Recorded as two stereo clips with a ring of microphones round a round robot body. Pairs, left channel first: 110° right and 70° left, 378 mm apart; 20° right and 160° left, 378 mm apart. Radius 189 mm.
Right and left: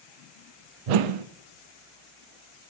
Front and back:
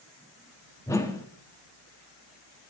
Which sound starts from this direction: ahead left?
A whoosh, at 0.9 s.